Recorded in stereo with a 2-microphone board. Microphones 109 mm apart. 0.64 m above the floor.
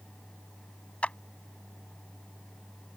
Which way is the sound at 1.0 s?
10° left (ahead or behind).